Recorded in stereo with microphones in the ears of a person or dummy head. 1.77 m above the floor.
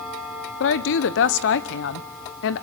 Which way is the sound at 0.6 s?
75° left (ahead or behind).